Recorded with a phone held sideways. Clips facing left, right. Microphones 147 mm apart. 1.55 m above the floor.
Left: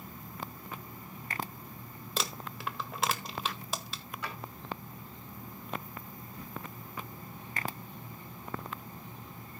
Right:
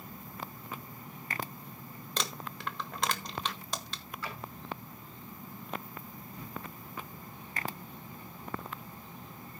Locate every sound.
2.2 s crumpling: 5° left (ahead or behind), 1.1 m
4.2 s a drawer: 20° left (ahead or behind), 9 m